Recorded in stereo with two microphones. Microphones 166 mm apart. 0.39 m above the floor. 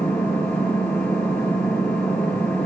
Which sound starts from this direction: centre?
An engine running, at 0.0 s.